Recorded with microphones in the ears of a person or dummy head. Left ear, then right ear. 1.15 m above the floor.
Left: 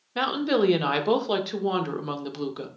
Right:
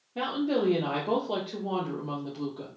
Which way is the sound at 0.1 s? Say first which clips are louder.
Left 5 dB; 55° left (ahead or behind).